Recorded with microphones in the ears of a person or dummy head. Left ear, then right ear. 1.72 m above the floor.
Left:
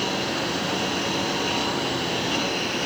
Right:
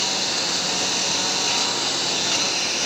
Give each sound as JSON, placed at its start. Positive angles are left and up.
{"t": 0.0, "sound": "a lawn mower", "side_deg": -40}